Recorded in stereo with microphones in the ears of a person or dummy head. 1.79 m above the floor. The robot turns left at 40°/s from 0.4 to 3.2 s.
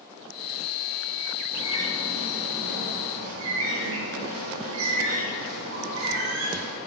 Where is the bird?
10° right, 2 m; by 6.8 s 75° right, 2 m.